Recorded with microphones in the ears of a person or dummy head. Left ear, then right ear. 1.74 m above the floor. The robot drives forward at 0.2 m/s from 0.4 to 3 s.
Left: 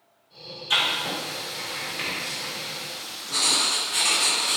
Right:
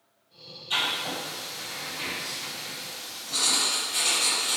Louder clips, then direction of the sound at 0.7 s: Left 4 dB; 45° left (ahead or behind).